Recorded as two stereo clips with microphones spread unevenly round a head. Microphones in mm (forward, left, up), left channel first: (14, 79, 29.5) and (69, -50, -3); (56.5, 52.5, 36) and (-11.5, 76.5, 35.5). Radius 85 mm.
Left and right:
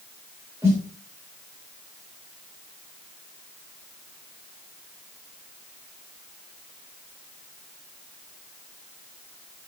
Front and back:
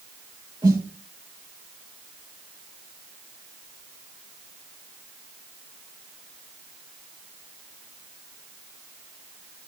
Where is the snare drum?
145° right, 7 m.